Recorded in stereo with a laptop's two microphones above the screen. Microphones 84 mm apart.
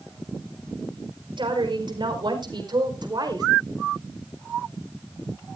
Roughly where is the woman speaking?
Right.